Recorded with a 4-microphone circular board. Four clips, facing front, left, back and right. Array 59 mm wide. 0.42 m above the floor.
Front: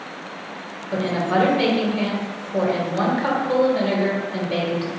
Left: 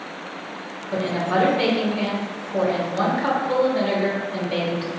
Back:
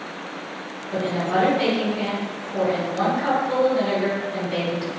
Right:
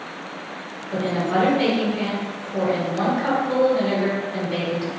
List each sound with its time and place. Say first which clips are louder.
0.9 s a woman speaking: even, front 2 dB; 40° left, 1.2 m